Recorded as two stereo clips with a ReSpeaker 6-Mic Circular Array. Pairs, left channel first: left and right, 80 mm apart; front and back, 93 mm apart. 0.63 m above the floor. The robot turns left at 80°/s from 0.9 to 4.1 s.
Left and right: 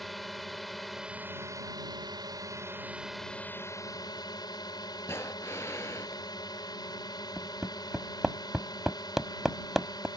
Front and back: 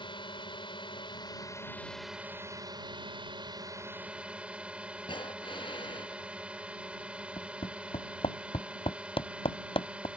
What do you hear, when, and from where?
0.0 s a drone: straight ahead; by 10.2 s 105° left
5.1 s breathing: 30° left
7.4 s hammering: 5° right